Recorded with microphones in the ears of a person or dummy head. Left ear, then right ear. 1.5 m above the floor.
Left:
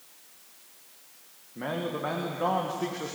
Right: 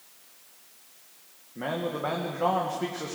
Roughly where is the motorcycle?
No motorcycle in this recording.